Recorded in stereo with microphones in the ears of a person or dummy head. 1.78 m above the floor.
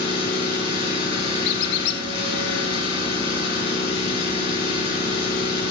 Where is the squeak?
60° left (ahead or behind), 1.3 m.